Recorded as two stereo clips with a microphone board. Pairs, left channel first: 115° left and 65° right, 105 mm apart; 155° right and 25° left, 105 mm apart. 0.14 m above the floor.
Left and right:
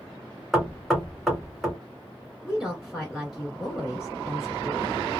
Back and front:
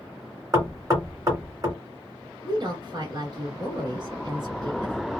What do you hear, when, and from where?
0.5 s knocking: 15° left, 1.6 m
2.4 s a woman speaking: 20° left, 1.5 m